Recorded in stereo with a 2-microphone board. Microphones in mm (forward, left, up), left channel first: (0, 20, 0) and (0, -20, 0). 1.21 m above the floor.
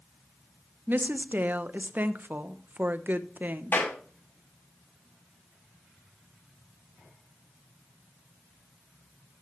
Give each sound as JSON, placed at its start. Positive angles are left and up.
{"t": 0.9, "sound": "a woman speaking", "side_deg": -50, "distance_m": 0.8}
{"t": 3.7, "sound": "a clap", "side_deg": 65, "distance_m": 6.0}